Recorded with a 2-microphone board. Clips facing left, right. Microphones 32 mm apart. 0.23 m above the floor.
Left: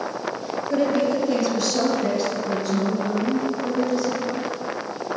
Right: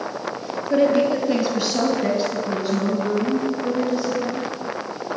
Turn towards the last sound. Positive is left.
turn(degrees=-20)  # may be behind; listen again after turning